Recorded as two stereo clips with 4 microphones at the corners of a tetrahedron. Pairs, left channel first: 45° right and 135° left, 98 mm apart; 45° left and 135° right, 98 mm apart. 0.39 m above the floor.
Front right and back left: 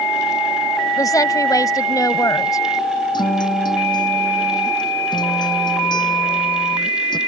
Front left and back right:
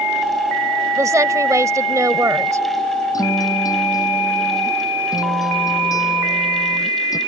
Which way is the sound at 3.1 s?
5° right.